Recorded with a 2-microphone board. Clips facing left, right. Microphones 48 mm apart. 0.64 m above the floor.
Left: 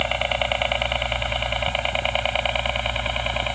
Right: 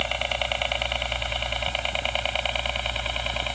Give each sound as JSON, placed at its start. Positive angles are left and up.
{"t": 0.0, "sound": "a helicopter", "side_deg": 15}